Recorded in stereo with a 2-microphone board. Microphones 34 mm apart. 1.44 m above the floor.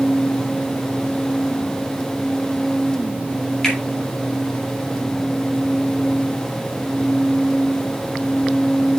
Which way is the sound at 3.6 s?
20° left (ahead or behind).